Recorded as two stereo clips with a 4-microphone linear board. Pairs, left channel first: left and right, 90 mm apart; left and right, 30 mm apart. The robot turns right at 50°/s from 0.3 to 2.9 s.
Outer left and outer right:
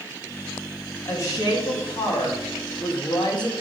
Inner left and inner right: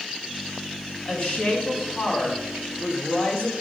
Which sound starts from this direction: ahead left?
A woman speaking, at 1.1 s.